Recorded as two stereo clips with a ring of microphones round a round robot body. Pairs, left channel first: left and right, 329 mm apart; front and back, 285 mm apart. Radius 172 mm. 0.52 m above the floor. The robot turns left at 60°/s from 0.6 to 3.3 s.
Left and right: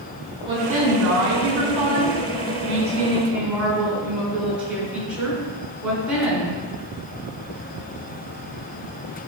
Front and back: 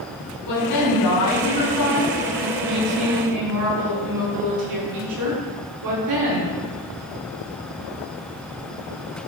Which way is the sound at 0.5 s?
15° right.